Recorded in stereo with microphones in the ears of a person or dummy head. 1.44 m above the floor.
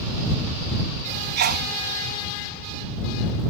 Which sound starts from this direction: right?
A sneeze, at 1.4 s.